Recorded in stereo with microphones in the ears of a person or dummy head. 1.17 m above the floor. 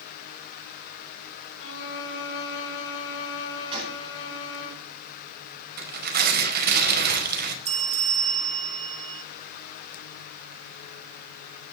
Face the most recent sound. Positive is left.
turn(degrees=-40)  # may be behind; listen again after turning